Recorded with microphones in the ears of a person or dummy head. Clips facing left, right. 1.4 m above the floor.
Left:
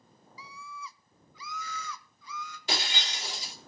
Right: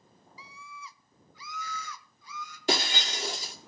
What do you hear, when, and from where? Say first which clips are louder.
0.4 s a scream: left 3 dB; 70° left (ahead or behind), 0.8 m; by 2.6 s 65° left (ahead or behind), 2.5 m
2.7 s breaking glass: right 7 dB; 45° right (ahead or behind), 2.5 m